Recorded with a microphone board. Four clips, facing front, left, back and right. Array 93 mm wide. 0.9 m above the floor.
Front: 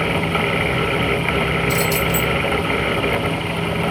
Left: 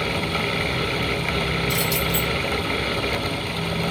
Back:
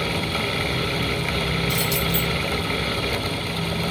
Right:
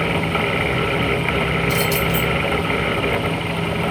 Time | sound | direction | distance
1.7 | keys jangling | 65° right | 1.5 m